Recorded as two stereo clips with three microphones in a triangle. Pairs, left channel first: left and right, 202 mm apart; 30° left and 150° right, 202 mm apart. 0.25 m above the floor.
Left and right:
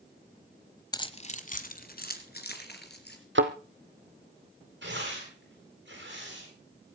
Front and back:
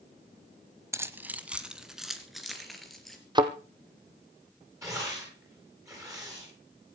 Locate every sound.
0.9 s keys jangling: 145° left, 1.0 m; by 3.2 s 120° left, 3.5 m
3.4 s a thud: 80° right, 1.4 m
4.8 s tearing paper: 75° right, 9.5 m